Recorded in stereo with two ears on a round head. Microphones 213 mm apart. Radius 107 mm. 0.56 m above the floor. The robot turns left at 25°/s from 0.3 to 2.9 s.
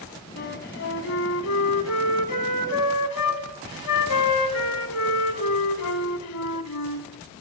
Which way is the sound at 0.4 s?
135° left.